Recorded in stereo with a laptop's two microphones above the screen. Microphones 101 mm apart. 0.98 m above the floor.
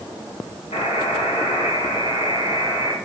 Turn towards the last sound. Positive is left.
turn(degrees=80)